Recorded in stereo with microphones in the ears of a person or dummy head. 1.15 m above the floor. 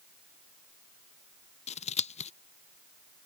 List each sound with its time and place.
1.7 s scissors: 35° left (ahead or behind)